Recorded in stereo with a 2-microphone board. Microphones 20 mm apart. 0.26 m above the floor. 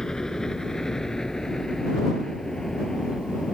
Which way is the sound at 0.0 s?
35° left (ahead or behind).